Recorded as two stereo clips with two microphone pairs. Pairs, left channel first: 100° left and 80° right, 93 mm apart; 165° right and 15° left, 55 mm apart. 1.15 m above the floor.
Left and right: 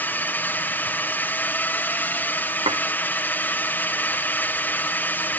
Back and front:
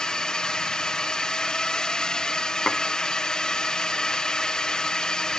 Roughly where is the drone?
Behind left.